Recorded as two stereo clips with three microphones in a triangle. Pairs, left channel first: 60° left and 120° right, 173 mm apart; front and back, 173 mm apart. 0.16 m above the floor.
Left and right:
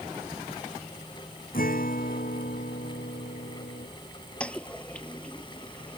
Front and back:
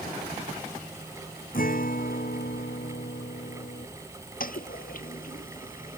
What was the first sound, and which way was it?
A guitar, 30° left.